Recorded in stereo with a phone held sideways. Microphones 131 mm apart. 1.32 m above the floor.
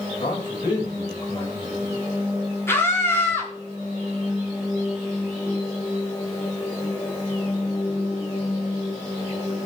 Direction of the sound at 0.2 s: 35° left (ahead or behind).